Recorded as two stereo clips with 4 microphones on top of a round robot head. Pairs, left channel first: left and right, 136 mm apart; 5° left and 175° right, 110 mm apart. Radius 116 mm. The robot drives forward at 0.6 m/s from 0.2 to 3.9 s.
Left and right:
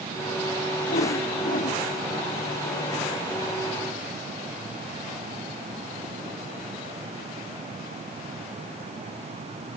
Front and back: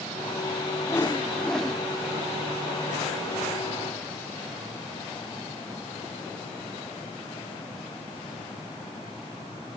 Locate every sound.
0.9 s a whoosh: 70° left, 1.3 m; by 1.8 s 100° left, 1.2 m